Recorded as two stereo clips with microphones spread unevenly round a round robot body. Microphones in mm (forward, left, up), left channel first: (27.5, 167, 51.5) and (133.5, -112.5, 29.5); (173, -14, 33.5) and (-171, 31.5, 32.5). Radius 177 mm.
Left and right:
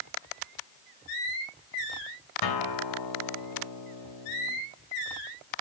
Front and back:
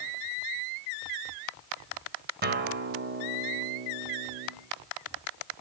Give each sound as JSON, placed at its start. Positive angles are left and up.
{"t": 2.4, "sound": "a guitar", "azimuth_deg": 110, "distance_m": 2.5}